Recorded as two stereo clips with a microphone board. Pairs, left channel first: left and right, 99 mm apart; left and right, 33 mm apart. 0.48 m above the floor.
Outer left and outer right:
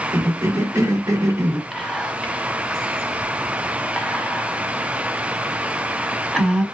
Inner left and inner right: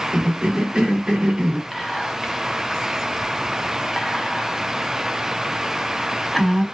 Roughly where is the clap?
I don't hear a clap.